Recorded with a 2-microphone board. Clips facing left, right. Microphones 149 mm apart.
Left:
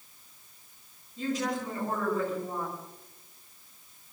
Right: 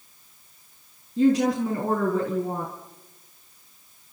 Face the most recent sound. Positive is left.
turn(degrees=-70)  # may be behind; listen again after turning